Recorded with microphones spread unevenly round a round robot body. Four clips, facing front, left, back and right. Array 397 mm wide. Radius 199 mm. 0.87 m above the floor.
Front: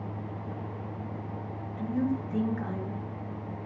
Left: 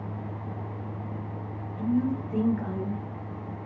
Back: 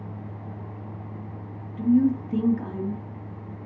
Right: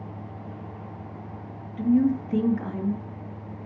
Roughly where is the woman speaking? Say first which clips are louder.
Right 5 dB, back 9 dB; behind right.